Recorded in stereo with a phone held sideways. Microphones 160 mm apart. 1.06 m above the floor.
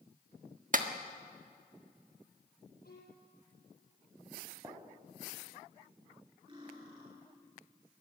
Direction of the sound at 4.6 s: 25° right (ahead or behind).